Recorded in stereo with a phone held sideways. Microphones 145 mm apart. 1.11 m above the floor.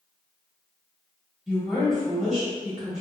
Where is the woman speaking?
Centre (ahead or behind), 1.0 m.